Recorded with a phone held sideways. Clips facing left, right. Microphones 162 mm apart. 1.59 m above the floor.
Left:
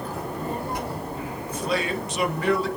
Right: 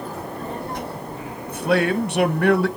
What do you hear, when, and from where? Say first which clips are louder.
0.1 s a child speaking: even; 10° left (ahead or behind), 6.5 m; by 2.5 s centre (ahead or behind), 6 m
1.5 s a man speaking: right 7 dB; 60° right (ahead or behind), 1.6 m